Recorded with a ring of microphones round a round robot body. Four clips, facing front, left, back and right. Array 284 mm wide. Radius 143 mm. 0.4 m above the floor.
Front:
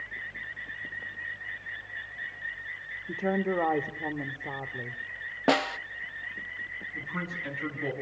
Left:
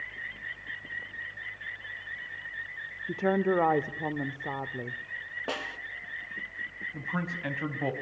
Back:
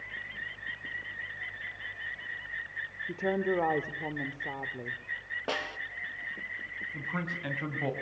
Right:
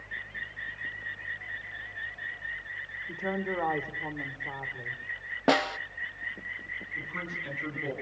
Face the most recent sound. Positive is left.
turn(degrees=115)